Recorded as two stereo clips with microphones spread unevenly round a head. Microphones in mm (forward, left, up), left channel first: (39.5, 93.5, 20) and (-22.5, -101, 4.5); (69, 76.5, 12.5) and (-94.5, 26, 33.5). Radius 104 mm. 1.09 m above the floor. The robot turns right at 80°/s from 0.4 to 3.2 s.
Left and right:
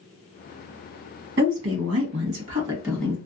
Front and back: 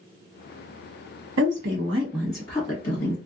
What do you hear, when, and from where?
1.4 s a woman speaking: 150° right, 1.2 m; by 3.2 s 5° right, 1.2 m